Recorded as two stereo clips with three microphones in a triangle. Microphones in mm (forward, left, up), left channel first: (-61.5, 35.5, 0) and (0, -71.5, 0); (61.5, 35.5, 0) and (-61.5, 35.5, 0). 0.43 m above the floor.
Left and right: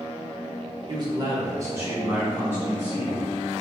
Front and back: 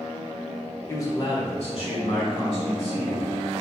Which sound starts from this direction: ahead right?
A man speaking, at 0.9 s.